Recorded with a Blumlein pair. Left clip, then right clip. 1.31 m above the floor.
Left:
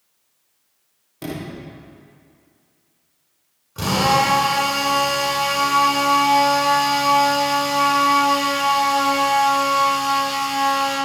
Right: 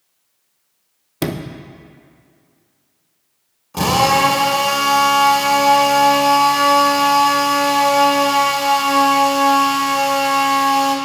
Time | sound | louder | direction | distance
1.2 | a sliding door | right 6 dB | 55° right | 0.8 m
3.7 | a drill | right 3 dB | 45° right | 3 m